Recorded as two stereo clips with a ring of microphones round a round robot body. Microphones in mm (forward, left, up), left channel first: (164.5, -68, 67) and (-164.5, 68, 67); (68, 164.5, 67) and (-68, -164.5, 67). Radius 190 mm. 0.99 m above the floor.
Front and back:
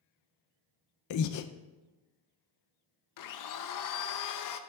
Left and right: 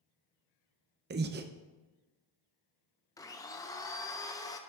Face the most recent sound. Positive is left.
turn(degrees=-10)